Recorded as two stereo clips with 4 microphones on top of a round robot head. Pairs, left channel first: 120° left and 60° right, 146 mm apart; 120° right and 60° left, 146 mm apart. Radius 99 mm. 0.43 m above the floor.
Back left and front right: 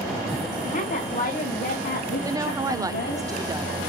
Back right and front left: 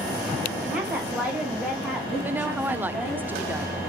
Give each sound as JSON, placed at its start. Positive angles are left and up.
{"t": 0.6, "sound": "a woman speaking", "azimuth_deg": 140, "distance_m": 2.0}
{"t": 2.2, "sound": "a woman speaking", "azimuth_deg": -10, "distance_m": 0.8}